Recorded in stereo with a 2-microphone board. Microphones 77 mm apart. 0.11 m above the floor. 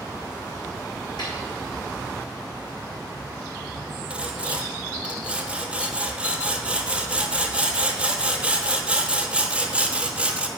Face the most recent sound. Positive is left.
turn(degrees=-10)  # may be behind; listen again after turning